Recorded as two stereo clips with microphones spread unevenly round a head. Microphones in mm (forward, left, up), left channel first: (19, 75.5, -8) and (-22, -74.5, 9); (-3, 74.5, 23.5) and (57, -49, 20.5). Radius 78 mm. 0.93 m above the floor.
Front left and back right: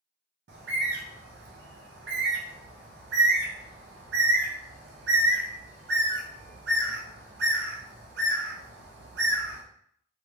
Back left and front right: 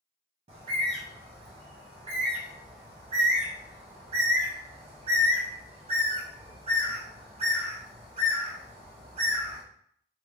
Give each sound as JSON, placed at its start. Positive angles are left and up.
{"t": 0.5, "sound": "a bird", "azimuth_deg": -105, "distance_m": 0.7}